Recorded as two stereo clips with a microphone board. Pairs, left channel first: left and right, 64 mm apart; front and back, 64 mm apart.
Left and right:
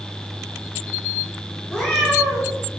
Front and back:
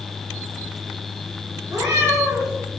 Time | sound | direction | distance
1.7 | a cat meowing | 175° right | 4 m